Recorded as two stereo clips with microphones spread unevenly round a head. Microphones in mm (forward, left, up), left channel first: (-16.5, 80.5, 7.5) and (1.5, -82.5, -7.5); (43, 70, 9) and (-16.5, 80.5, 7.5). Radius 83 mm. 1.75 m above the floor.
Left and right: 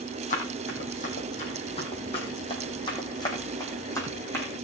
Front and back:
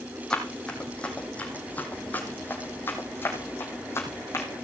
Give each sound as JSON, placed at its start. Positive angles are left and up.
{"t": 0.3, "sound": "running footsteps", "azimuth_deg": 65, "distance_m": 4.0}